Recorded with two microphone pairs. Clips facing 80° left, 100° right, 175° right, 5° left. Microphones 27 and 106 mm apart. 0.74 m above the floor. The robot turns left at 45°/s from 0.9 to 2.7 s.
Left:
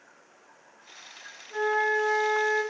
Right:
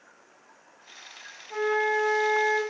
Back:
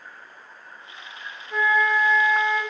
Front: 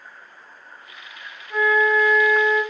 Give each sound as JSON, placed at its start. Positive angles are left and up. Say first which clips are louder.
{"t": 1.5, "sound": "a flute", "louder": "even, front 3 dB", "azimuth_deg": -65, "distance_m": 1.0}